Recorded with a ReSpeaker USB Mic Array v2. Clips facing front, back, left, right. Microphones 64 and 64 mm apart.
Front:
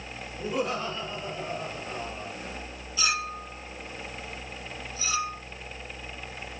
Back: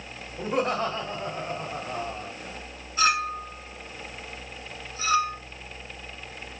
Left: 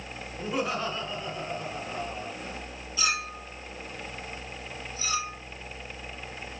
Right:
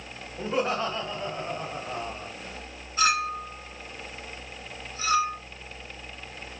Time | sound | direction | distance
0.4 | laughter | 145° right | 2.5 m
3.0 | a clink | 135° right | 2 m